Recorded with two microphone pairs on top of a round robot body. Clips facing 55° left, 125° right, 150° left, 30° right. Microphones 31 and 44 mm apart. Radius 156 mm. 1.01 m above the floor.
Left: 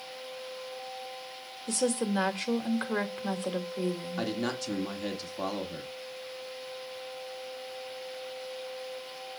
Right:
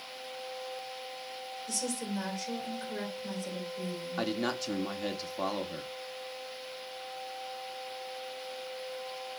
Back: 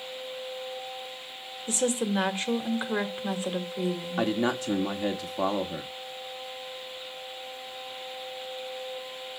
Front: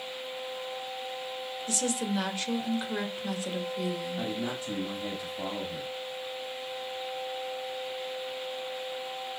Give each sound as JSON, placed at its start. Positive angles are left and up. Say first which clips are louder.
{"t": 1.7, "sound": "a woman speaking", "louder": "left 8 dB, back 4 dB", "azimuth_deg": 85, "distance_m": 2.0}
{"t": 4.2, "sound": "a man speaking", "louder": "right 3 dB, back 6 dB", "azimuth_deg": 155, "distance_m": 1.8}